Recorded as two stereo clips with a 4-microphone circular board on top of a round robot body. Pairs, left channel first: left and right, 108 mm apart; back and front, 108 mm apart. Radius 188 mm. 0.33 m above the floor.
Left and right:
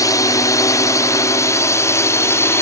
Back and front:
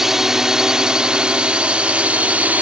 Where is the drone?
80° left; by 2.6 s 60° left.